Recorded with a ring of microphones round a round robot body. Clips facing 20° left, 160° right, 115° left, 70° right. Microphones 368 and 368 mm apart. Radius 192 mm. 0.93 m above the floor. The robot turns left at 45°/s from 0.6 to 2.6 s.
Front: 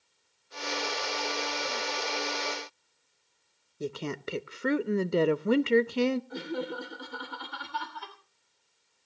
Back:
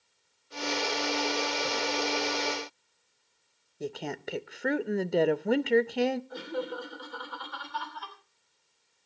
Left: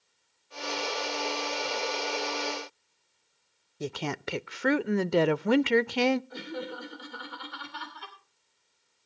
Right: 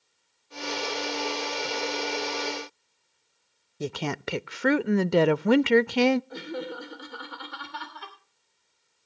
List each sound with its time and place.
3.8 s a woman speaking: 55° right, 0.5 m
6.3 s laughter: 35° right, 3 m